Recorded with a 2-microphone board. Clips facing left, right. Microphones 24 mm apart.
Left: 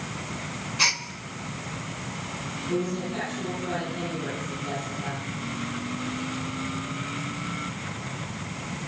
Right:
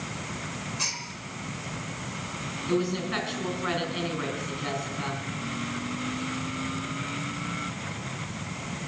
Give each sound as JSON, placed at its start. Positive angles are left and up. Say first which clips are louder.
{"t": 0.8, "sound": "a gasp", "louder": "left 9 dB", "side_deg": 45, "distance_m": 0.7}
{"t": 2.7, "sound": "a woman speaking", "louder": "right 2 dB", "side_deg": -70, "distance_m": 4.0}